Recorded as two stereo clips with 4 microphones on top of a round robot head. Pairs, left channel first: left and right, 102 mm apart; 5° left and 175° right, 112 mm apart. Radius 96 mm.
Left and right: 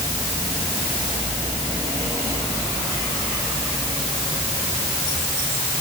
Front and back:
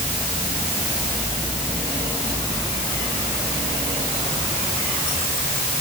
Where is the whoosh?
No whoosh in this recording.